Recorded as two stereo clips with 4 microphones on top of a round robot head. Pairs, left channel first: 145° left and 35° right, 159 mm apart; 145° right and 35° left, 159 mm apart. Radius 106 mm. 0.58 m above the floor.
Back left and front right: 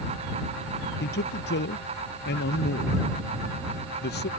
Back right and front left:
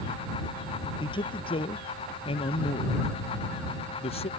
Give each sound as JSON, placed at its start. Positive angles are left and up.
{"t": 1.0, "sound": "a man speaking", "azimuth_deg": 155}